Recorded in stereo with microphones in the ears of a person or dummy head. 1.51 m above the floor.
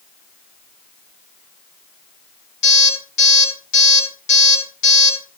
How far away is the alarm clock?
About 8 m.